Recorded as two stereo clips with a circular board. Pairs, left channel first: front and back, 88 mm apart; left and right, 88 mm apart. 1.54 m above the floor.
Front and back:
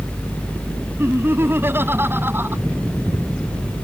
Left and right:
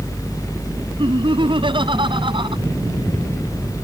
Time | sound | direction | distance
1.0 | laughter | 115° right | ?